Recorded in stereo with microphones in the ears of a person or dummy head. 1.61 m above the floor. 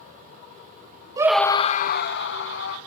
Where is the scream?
25° right (ahead or behind), 0.8 m; by 2.8 s 70° left (ahead or behind), 2.5 m.